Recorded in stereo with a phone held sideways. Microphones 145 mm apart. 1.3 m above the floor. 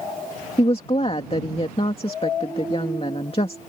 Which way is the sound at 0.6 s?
40° left (ahead or behind).